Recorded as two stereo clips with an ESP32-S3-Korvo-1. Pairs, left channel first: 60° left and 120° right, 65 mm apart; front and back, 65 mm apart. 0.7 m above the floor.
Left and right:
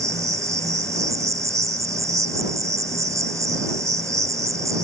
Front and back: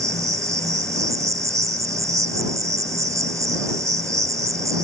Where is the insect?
150° right.